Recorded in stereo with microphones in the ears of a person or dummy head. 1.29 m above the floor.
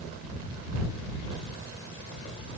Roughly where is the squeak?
I don't hear a squeak.